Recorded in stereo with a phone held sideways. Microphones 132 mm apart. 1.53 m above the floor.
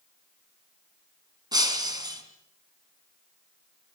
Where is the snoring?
No snoring in this recording.